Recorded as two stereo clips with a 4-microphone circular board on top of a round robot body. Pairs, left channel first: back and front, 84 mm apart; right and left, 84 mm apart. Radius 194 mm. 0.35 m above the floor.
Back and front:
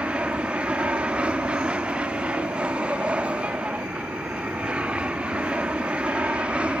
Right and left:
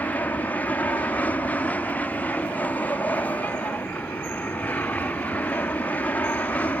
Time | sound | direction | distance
0.0 | an aircraft | 55° right | ?